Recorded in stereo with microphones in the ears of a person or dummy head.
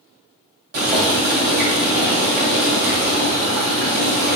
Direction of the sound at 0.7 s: 45° right (ahead or behind).